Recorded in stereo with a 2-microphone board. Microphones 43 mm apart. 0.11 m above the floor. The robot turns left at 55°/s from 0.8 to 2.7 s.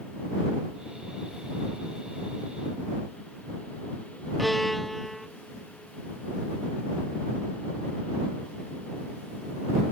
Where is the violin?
Centre (ahead or behind).